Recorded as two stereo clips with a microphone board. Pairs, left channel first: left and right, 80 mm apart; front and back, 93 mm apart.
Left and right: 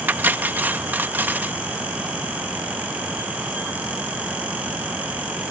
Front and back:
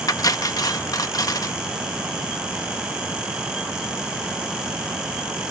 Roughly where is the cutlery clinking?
Ahead right.